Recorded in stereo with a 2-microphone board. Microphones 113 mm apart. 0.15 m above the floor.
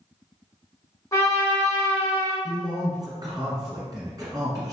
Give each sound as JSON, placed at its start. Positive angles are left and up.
{"t": 1.1, "sound": "a trumpet", "side_deg": 25, "distance_m": 1.2}
{"t": 2.4, "sound": "a man speaking", "side_deg": -35, "distance_m": 1.8}